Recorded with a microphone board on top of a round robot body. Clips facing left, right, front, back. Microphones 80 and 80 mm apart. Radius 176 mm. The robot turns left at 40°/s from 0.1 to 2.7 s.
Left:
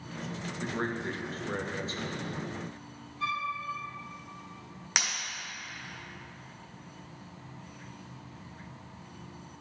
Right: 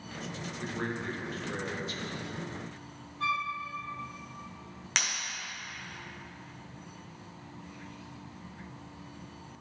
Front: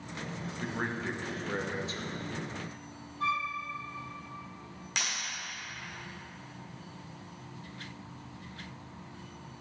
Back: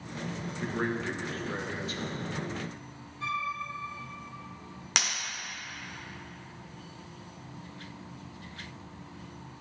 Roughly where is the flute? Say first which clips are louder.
Right 1 dB, front 2 dB; ahead right.